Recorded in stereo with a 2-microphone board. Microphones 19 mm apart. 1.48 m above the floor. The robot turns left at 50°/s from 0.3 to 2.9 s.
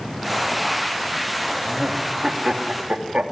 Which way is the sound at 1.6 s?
10° right (ahead or behind).